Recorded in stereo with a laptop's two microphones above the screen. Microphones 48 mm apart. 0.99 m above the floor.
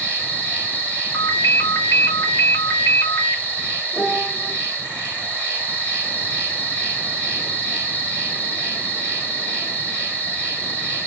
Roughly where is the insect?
Right.